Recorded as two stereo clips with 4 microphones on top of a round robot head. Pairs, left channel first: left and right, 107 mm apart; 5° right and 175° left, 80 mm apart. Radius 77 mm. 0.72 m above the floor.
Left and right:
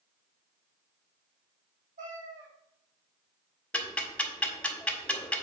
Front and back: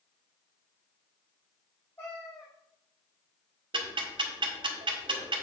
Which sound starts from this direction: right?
A cat meowing, at 2.0 s.